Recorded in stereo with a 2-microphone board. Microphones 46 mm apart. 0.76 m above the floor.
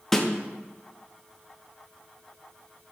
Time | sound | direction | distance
0.1 | a snare drum | 5° left (ahead or behind) | 0.9 m